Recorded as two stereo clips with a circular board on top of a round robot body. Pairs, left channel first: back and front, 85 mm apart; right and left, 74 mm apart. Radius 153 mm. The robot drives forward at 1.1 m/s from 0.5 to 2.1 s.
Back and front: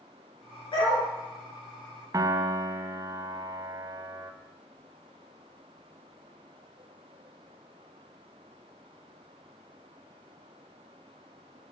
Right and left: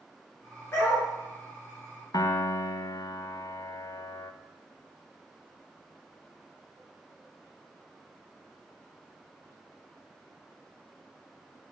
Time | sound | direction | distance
0.7 | a dog barking | 150° right | 4 m
2.1 | a piano | 55° right | 0.7 m